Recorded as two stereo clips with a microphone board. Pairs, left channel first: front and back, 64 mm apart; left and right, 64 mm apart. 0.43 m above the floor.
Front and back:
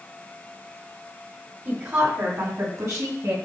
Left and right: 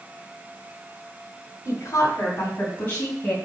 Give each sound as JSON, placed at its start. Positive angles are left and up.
{"t": 1.6, "sound": "a woman speaking", "azimuth_deg": 130, "distance_m": 2.5}